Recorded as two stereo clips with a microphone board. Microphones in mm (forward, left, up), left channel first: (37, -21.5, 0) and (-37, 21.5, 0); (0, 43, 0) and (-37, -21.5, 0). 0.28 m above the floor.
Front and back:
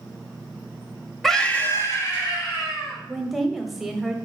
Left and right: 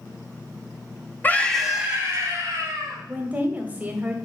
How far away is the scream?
About 1.0 m.